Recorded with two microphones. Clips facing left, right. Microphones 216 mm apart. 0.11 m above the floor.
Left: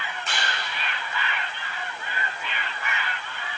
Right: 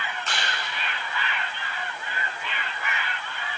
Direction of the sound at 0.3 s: 5° left (ahead or behind).